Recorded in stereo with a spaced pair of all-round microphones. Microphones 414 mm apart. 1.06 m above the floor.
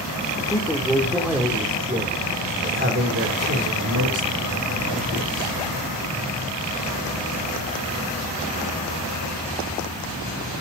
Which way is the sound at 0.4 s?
10° left (ahead or behind).